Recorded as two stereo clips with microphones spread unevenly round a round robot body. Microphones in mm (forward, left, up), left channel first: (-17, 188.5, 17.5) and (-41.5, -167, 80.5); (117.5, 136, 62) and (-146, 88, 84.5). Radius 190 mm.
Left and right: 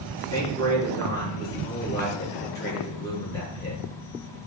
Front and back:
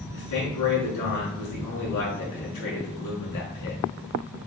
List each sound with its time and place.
0.1 s a man speaking: 5° left, 5.5 m